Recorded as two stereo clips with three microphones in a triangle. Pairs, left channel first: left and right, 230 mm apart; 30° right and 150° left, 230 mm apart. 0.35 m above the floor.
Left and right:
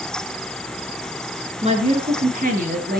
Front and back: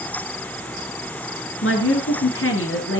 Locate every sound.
1.6 s a woman speaking: 30° right, 5.5 m; by 3.0 s 45° right, 7 m